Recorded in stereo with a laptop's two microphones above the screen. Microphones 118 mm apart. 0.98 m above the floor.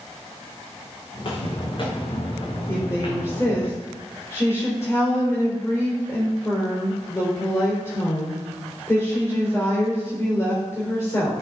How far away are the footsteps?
About 4.5 m.